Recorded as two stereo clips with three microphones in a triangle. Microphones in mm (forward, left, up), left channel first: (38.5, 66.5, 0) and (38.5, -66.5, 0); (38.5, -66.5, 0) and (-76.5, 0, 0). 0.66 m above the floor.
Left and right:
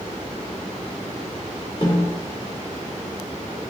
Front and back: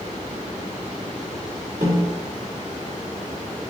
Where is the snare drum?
140° left, 1.2 m.